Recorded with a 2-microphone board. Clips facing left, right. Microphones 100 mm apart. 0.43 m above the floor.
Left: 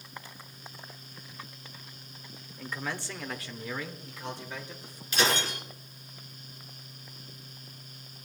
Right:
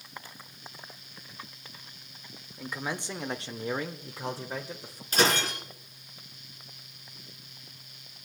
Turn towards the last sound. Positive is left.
turn(degrees=-40)  # may be behind; listen again after turning